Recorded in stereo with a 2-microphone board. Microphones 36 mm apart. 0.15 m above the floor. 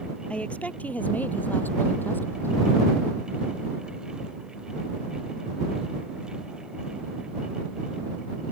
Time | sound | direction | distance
0.3 | a woman speaking | 35° left (ahead or behind) | ?